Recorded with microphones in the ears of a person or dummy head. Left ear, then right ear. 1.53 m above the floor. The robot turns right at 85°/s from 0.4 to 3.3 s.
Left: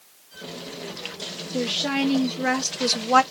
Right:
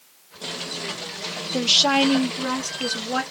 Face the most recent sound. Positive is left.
turn(degrees=95)